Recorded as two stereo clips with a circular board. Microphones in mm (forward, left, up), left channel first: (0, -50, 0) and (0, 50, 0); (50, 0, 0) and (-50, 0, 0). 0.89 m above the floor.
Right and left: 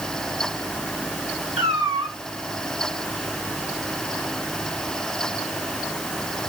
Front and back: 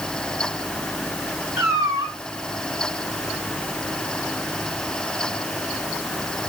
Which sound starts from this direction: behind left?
A cat meowing, at 1.6 s.